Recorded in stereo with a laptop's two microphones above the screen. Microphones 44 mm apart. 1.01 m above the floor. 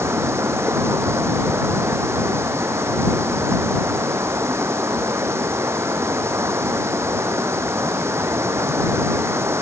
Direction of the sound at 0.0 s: 80° right.